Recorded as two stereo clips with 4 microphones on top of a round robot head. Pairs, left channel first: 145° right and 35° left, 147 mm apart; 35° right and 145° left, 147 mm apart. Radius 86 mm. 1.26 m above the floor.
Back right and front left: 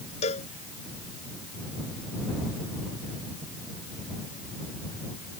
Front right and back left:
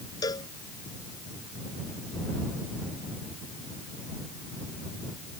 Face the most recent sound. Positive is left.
turn(degrees=-100)